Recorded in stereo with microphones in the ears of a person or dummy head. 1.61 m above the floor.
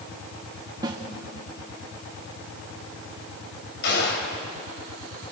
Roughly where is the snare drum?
Right.